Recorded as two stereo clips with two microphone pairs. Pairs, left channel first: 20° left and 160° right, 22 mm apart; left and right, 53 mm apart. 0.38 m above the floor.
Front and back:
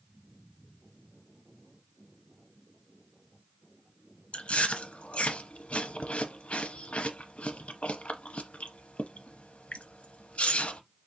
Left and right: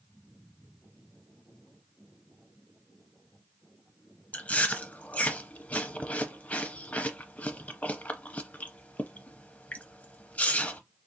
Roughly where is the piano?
I don't hear a piano.